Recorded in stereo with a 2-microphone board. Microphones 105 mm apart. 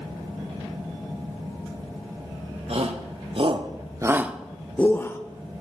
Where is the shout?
65° right (ahead or behind), 1.7 m; by 5.2 s 25° left (ahead or behind), 1.4 m.